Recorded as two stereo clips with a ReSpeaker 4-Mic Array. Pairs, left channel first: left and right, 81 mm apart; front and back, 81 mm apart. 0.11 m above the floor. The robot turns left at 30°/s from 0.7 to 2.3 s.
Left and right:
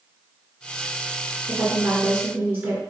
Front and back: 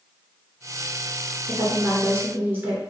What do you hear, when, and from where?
1.5 s a woman speaking: 125° right, 1.7 m; by 2.8 s 150° right, 1.7 m